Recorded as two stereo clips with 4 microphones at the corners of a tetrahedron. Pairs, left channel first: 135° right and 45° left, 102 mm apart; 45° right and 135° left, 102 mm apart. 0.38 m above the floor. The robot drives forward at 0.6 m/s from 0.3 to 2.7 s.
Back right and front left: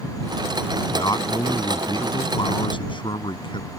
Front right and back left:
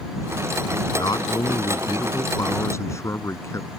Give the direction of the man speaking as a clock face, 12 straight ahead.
3 o'clock.